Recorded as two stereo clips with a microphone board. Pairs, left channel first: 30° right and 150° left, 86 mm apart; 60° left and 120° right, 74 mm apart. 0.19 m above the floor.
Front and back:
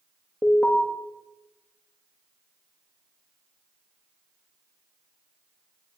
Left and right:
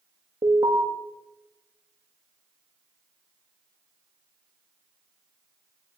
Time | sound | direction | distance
0.4 | an alarm | 95° right | 9 m